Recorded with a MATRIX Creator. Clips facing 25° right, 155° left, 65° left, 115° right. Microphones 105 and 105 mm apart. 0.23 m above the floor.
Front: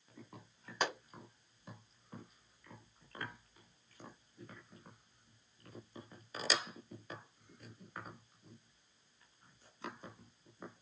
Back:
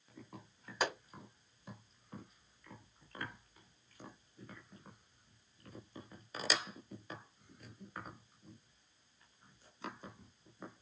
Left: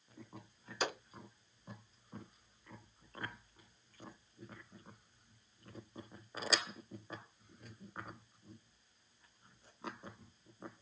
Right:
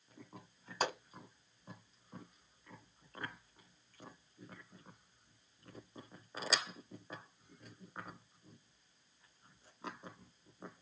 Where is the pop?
120° right, 2.0 m.